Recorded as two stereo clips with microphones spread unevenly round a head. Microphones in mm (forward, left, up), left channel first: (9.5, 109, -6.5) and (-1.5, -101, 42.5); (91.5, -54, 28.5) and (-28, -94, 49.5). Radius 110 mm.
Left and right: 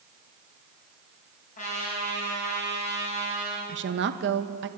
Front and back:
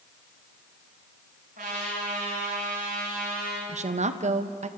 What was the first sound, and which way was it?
A trumpet, 145° left.